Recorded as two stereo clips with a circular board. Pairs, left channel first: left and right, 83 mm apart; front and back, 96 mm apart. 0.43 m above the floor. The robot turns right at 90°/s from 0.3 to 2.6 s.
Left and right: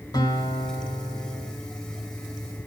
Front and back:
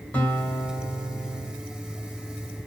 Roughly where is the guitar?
Left.